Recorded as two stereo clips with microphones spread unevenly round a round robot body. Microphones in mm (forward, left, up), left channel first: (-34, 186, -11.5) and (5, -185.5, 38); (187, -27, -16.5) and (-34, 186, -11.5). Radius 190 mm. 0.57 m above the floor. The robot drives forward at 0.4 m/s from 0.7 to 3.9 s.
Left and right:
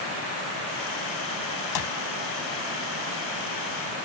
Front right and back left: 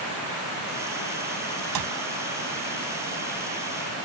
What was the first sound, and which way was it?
A clap, 130° left.